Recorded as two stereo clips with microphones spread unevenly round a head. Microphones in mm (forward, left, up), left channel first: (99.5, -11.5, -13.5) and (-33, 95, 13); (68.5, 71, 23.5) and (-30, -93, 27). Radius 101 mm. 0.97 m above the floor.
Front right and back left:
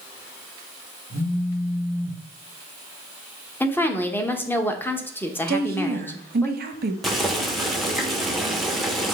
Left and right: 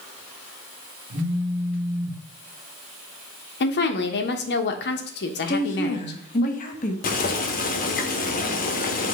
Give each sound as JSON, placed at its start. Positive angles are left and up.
{"t": 1.1, "sound": "a phone buzzing", "azimuth_deg": -70, "distance_m": 1.1}
{"t": 3.6, "sound": "a woman speaking", "azimuth_deg": 35, "distance_m": 0.8}
{"t": 5.5, "sound": "a woman speaking", "azimuth_deg": 110, "distance_m": 0.8}
{"t": 7.0, "sound": "boiling", "azimuth_deg": 45, "distance_m": 0.9}